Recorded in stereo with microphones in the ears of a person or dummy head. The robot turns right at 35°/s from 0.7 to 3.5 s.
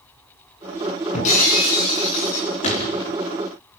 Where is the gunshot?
45° left (ahead or behind), 4.5 m; by 3.1 s 30° left (ahead or behind), 4.5 m.